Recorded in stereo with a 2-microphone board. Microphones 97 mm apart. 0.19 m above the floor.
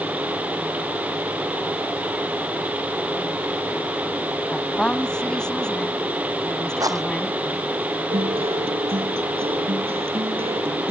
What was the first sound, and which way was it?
A woman speaking, 10° left (ahead or behind).